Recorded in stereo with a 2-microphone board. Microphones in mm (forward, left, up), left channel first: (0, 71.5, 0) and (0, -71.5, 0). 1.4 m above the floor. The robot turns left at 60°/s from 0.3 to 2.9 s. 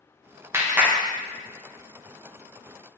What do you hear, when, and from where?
0.5 s a clap: 15° right (ahead or behind), 0.6 m; by 0.9 s 5° right (ahead or behind), 0.6 m